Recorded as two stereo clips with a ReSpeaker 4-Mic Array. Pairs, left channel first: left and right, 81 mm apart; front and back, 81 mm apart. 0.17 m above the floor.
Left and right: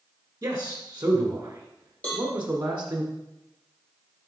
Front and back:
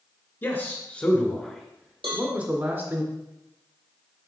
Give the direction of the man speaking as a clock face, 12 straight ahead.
1 o'clock.